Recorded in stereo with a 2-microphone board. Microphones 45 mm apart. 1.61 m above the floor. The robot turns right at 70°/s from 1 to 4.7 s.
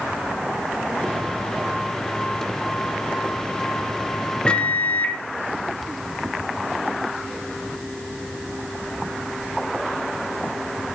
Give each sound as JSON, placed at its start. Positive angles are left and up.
{"t": 4.5, "sound": "a microwave", "side_deg": 20, "distance_m": 0.7}